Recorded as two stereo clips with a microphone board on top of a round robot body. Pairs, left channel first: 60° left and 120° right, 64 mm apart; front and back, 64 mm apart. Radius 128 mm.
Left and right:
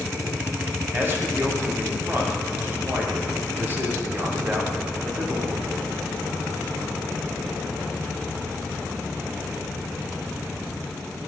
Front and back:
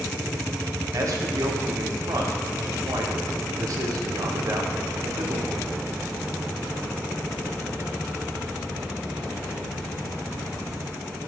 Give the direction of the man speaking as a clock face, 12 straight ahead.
6 o'clock.